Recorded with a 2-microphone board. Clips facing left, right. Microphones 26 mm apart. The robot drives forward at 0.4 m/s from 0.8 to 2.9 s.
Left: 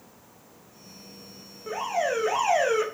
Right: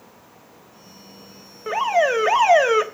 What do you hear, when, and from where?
1.7 s an alarm: 50° right (ahead or behind), 1.7 m; by 2.8 s 45° right (ahead or behind), 1.8 m